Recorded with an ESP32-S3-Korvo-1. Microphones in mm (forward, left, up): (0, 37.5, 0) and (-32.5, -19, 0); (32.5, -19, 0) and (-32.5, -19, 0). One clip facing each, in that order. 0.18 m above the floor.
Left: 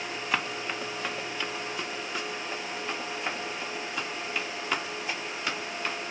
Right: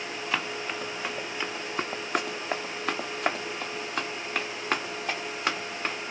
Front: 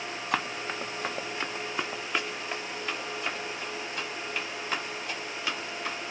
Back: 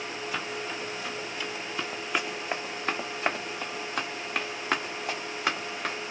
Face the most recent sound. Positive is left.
turn(degrees=-165)